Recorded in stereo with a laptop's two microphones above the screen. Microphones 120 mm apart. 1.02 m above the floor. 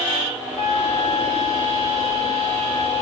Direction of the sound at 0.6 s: 65° right (ahead or behind).